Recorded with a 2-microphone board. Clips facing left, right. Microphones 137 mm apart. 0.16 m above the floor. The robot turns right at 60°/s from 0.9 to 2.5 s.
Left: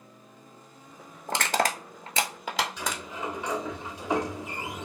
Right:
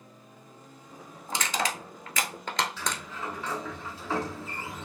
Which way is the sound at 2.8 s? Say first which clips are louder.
Left 1 dB; 15° left (ahead or behind).